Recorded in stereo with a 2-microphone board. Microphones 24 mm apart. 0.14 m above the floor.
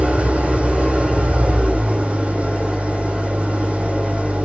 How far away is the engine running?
About 5.5 m.